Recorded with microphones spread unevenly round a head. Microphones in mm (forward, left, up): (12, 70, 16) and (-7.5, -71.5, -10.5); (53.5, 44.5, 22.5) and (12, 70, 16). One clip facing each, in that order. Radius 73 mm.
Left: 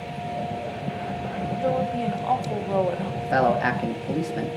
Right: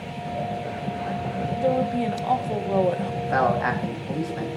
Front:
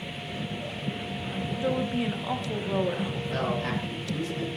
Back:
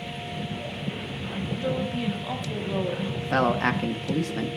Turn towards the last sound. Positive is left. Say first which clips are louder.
# left 2 dB, back 9 dB
turn(degrees=140)